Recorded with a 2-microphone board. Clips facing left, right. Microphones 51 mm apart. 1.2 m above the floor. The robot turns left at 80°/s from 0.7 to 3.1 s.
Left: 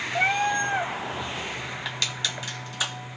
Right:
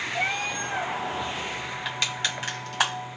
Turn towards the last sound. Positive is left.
turn(degrees=-60)  # may be behind; listen again after turning